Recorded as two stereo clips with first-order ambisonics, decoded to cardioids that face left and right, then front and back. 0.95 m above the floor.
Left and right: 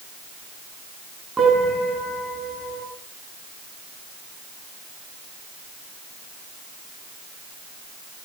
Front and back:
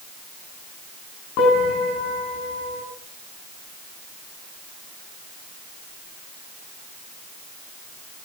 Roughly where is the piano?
Ahead.